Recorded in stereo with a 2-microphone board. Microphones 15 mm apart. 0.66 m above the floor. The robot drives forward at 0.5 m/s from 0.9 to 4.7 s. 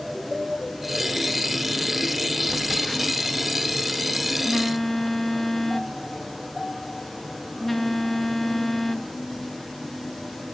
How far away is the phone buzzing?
About 0.7 m.